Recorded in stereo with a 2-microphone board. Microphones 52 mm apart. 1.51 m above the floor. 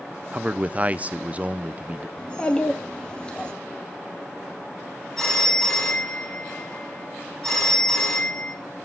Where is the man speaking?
30° right (ahead or behind), 0.6 m.